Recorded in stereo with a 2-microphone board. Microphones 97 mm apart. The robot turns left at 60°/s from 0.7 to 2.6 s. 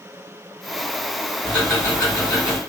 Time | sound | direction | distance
1.4 | ticking | 155° left | 1.8 m